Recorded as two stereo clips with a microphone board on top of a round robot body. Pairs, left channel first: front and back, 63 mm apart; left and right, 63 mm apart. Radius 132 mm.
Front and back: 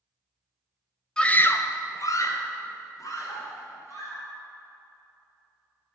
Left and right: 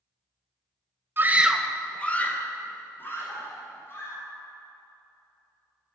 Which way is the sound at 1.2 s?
70° right.